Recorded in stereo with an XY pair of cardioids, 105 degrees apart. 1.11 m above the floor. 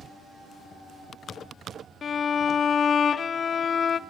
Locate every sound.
2.0 s a violin: 45° left, 0.6 m